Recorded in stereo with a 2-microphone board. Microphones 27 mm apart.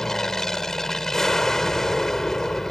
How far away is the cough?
No cough in this recording.